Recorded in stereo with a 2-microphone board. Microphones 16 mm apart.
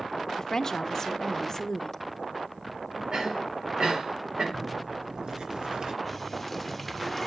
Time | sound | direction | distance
0.4 | a woman speaking | 35° left (ahead or behind) | 0.7 m
3.1 | a cough | 65° right (ahead or behind) | 4.5 m
4.5 | tearing paper | 70° right (ahead or behind) | 2.5 m
6.0 | a running tap | 5° left (ahead or behind) | 1.3 m